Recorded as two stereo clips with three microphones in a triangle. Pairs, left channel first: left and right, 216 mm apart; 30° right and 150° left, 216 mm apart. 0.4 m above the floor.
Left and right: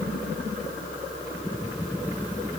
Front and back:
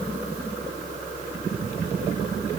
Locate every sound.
Only background noise.